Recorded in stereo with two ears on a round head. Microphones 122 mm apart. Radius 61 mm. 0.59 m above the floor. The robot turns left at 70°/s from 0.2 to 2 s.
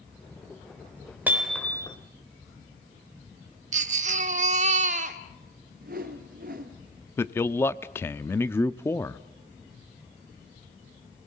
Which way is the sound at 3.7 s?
55° right (ahead or behind).